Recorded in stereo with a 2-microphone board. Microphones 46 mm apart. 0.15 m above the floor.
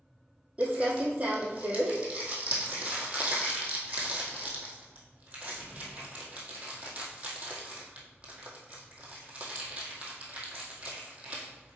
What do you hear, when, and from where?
0.6 s crumpling: 30° right (ahead or behind), 1.9 m